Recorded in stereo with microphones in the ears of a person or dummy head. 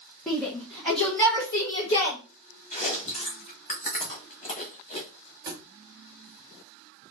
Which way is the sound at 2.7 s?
35° left (ahead or behind).